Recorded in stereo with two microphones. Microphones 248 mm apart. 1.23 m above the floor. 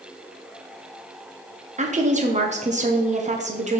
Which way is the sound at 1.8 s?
30° right (ahead or behind).